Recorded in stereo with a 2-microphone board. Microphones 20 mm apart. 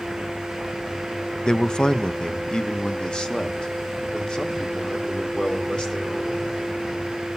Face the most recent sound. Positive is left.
turn(degrees=45)  # may be behind; listen again after turning